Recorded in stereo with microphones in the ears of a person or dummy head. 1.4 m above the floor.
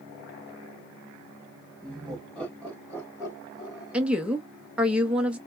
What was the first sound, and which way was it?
Laughter, 5° right (ahead or behind).